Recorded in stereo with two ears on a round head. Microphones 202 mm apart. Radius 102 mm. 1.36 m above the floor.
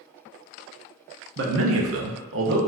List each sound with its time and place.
1.4 s a man speaking: 45° right (ahead or behind), 0.6 m; by 2.6 s 55° right (ahead or behind), 0.9 m